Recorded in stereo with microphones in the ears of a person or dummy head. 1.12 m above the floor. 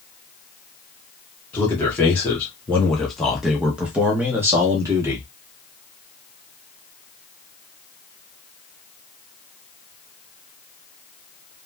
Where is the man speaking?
10° left (ahead or behind), 1.3 m; by 5.2 s 15° right (ahead or behind), 1.1 m.